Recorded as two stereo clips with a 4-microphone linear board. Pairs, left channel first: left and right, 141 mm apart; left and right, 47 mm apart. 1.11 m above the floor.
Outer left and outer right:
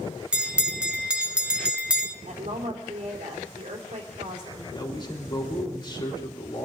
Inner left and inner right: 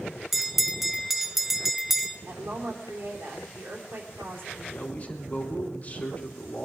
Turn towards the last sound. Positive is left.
turn(degrees=35)  # may be behind; listen again after turning